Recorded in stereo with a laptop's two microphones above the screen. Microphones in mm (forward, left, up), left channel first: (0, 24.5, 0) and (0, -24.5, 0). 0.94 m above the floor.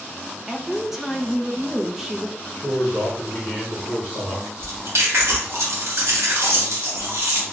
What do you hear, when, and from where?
0.5 s a woman speaking: 5° right (ahead or behind), 0.6 m
2.5 s a man speaking: 35° left (ahead or behind), 0.9 m
4.6 s chewing: 70° right (ahead or behind), 1.1 m